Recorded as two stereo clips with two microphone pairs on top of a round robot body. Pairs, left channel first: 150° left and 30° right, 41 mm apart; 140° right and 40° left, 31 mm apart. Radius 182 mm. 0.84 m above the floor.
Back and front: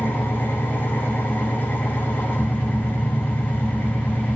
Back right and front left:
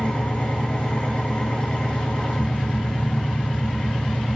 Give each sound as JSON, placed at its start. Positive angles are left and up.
{"t": 0.0, "sound": "an engine running", "azimuth_deg": 180, "distance_m": 2.5}